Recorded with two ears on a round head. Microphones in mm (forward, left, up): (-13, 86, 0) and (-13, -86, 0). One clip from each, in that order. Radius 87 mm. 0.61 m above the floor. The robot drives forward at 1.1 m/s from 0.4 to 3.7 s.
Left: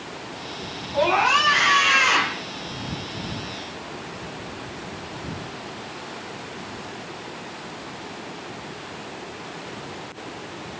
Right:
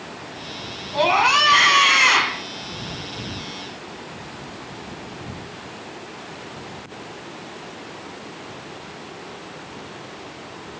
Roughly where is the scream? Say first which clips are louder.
Right 2 dB; right.